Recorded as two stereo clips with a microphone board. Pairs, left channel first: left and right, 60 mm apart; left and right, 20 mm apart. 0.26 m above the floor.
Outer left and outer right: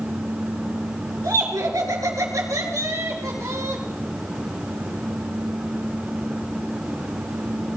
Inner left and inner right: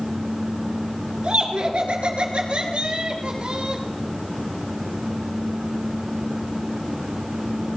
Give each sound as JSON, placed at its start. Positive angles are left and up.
{"t": 1.2, "sound": "laughter", "side_deg": -70, "distance_m": 3.0}